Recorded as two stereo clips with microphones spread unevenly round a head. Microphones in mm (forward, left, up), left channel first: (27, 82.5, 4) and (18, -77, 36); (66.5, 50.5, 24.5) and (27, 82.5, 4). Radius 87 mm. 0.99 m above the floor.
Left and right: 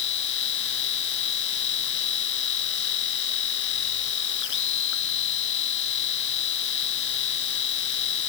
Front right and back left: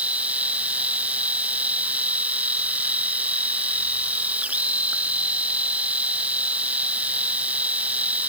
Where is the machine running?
80° left.